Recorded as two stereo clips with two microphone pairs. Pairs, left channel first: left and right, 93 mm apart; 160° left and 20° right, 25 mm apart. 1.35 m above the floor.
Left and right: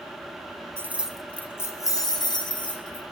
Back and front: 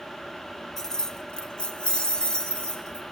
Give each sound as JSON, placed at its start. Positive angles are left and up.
{"t": 0.8, "sound": "keys jangling", "azimuth_deg": -135, "distance_m": 0.5}